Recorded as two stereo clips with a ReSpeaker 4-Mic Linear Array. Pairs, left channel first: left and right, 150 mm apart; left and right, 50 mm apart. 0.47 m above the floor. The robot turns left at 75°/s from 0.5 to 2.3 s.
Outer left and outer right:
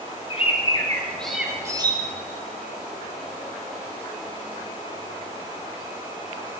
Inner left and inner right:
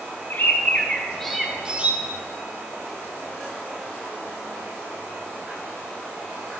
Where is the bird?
60° left, 0.9 m; by 2.0 s 50° right, 0.9 m.